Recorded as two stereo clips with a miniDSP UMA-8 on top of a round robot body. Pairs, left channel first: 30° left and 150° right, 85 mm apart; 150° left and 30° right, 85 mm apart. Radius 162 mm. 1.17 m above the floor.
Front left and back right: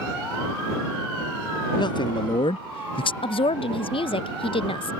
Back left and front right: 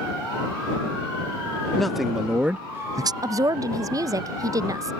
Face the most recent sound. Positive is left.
turn(degrees=20)